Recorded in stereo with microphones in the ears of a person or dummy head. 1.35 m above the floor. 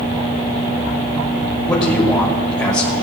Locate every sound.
1.7 s a man speaking: 20° left (ahead or behind), 3 m